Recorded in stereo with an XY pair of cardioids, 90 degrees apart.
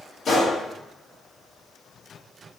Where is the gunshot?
60° left, 1.8 m.